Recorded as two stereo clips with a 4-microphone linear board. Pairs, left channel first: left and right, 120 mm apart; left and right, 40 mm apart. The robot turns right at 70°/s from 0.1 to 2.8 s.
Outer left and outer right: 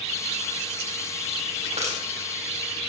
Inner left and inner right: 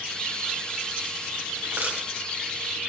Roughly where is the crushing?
Right.